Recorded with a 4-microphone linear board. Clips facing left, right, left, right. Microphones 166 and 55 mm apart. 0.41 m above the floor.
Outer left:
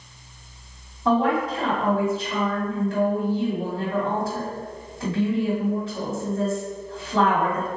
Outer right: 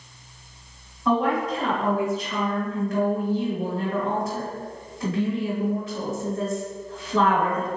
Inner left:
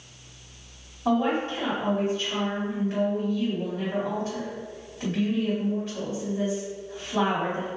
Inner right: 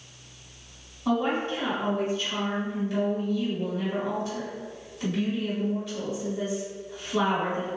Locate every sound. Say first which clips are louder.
1.1 s a woman speaking: outer left 1 dB, inner left 2 dB; 30° left (ahead or behind), 1.9 m